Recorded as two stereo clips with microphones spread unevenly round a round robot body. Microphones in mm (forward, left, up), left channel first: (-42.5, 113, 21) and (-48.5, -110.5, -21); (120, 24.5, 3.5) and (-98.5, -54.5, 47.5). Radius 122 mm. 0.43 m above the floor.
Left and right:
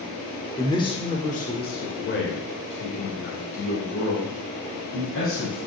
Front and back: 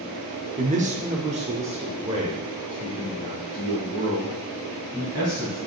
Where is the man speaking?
175° left, 1.0 m; by 5.6 s 120° left, 3.5 m.